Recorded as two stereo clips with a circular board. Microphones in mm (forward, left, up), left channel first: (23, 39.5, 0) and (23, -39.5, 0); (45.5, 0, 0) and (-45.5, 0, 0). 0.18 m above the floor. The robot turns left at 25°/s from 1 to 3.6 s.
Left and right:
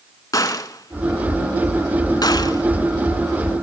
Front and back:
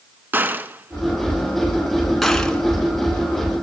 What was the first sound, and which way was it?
A gunshot, 120° left.